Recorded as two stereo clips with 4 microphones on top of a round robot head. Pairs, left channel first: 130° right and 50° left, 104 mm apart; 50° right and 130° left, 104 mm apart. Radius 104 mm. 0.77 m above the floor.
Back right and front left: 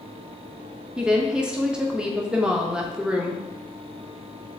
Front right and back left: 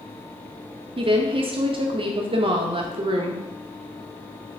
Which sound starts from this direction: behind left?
A woman speaking, at 1.0 s.